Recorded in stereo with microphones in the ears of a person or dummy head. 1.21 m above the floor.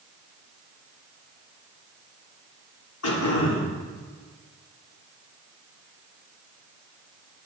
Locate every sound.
3.0 s throat clearing: 85° left, 4 m